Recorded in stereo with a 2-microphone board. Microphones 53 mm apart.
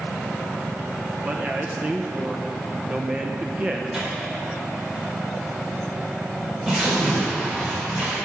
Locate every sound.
1.2 s a man speaking: 25° right (ahead or behind), 0.9 m
3.9 s tearing paper: 15° right (ahead or behind), 4.5 m